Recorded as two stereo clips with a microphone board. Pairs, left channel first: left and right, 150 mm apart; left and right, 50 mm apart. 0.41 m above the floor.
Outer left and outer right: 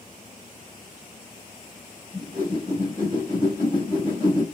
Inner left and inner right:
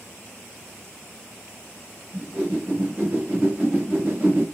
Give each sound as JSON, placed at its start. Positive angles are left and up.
{"t": 2.1, "sound": "a whoosh", "side_deg": -35, "distance_m": 2.0}